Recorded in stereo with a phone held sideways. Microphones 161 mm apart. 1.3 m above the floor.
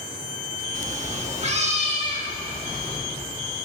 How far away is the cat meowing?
About 0.9 m.